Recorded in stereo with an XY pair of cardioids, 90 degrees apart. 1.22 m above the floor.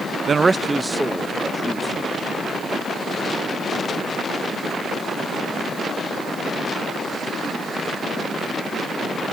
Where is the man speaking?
45° right; by 2.3 s 15° left.